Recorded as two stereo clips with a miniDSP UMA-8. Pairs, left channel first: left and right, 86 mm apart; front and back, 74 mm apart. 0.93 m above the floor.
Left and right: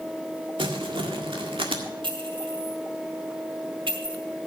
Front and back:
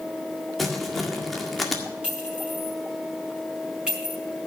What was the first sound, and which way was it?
Crumpling, 90° right.